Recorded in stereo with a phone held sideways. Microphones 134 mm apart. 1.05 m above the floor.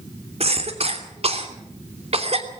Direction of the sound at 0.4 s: 50° right (ahead or behind).